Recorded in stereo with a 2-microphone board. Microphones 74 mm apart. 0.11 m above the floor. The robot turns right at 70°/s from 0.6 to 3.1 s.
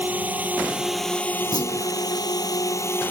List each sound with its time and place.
0.0 s a drone: 25° right; by 3.1 s 150° left
1.5 s a clunk: 75° left (ahead or behind); by 1.9 s 65° left (ahead or behind)